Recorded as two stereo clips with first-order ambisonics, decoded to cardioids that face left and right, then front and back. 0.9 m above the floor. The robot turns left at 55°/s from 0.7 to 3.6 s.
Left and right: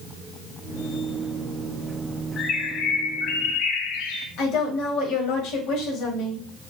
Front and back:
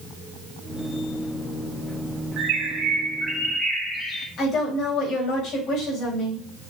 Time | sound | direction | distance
2.4 | a bird | 150° left | 2.0 m
4.4 | a woman speaking | 50° left | 4.5 m